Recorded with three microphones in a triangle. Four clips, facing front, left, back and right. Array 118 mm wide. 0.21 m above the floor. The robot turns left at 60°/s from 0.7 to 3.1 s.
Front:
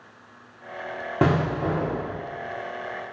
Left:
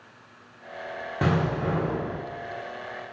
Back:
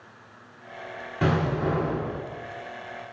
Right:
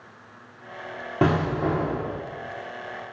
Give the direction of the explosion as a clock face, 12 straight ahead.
1 o'clock.